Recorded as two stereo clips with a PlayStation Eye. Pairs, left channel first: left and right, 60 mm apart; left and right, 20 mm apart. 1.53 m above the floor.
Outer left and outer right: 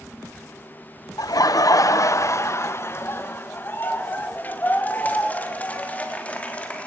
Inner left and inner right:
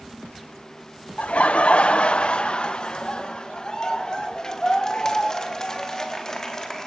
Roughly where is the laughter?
Left.